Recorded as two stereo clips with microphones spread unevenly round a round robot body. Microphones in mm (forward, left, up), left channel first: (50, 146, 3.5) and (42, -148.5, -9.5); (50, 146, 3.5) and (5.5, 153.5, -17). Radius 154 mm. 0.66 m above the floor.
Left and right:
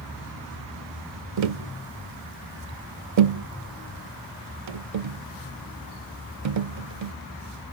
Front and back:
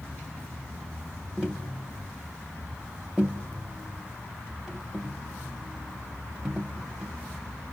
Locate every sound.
1.4 s tapping: 85° right, 0.6 m